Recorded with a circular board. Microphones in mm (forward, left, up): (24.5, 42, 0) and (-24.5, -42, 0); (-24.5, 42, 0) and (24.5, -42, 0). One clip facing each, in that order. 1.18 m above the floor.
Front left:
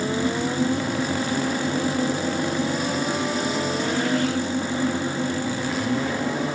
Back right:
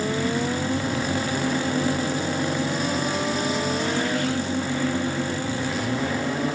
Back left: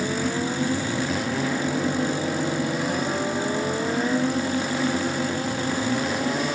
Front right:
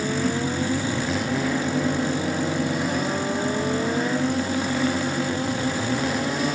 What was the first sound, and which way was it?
Only background noise.